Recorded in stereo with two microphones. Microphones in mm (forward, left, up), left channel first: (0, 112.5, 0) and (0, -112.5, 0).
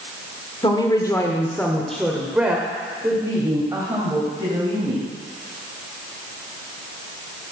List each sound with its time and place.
0.6 s a woman speaking: 20° left (ahead or behind), 1.2 m; by 5.1 s 20° right (ahead or behind), 3 m